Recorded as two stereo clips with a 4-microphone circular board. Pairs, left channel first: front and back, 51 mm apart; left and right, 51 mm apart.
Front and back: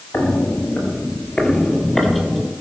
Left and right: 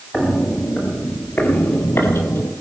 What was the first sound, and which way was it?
Footsteps, 15° left.